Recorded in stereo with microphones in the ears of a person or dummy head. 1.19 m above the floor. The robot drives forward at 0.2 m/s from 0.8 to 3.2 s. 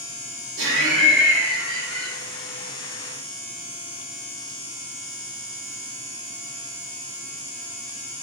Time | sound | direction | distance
0.6 | laughter | 70° right (ahead or behind) | 1.2 m